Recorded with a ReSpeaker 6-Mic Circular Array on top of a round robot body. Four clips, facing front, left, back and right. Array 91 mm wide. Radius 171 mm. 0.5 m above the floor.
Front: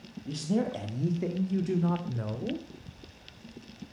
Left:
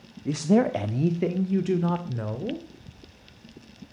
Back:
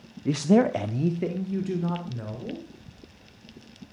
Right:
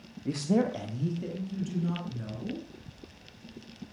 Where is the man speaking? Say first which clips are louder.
Left 5 dB, back 9 dB; 165° left, 1.1 m; by 2.6 s 80° left, 2.5 m.